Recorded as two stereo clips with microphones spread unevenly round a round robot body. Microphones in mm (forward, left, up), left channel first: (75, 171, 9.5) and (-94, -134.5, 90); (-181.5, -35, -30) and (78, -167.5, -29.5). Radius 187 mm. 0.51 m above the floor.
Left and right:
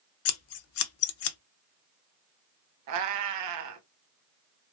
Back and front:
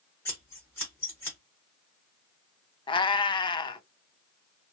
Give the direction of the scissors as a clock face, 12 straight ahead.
10 o'clock.